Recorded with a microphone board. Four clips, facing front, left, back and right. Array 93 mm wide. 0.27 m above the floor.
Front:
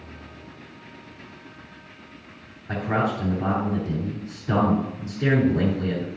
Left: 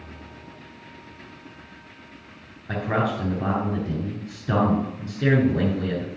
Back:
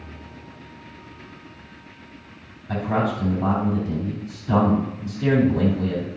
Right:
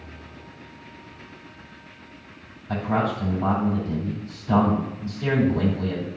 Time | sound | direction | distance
2.7 | a man speaking | 65° left | 3.5 m